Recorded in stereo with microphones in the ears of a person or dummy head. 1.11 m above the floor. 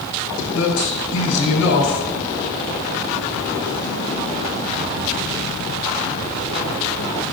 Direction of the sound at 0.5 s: 80° left.